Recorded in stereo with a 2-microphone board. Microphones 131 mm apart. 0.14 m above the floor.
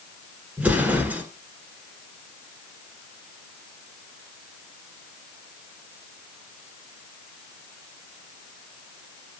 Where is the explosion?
10° right (ahead or behind), 1.4 m.